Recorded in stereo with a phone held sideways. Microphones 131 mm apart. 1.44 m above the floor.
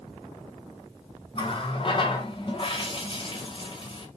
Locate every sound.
1.4 s a running tap: 40° left (ahead or behind), 0.7 m